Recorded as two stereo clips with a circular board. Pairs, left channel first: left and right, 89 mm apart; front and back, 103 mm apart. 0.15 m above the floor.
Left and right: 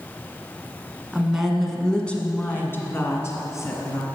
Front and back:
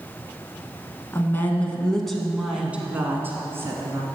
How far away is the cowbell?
I don't hear a cowbell.